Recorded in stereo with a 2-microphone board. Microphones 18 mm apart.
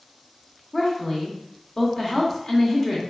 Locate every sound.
0.7 s a woman speaking: 25° left (ahead or behind), 0.7 m